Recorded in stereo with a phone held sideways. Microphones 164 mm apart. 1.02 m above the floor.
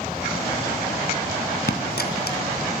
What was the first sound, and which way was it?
A dropped coin, 75° left (ahead or behind).